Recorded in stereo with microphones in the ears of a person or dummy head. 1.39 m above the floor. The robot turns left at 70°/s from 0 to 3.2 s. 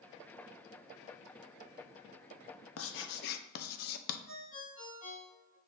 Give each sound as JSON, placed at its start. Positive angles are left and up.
{"t": 2.8, "sound": "writing", "side_deg": 70, "distance_m": 0.7}
{"t": 4.3, "sound": "a ringtone", "side_deg": 40, "distance_m": 4.0}